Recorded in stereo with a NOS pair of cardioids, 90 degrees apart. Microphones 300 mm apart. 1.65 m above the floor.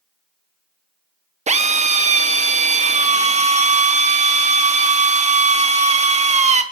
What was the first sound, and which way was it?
A drill, 20° right.